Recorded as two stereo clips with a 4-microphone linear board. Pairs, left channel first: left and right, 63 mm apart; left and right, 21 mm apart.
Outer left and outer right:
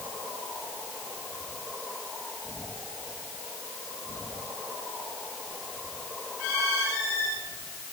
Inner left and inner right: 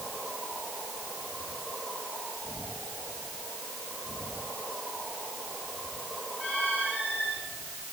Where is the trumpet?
I don't hear a trumpet.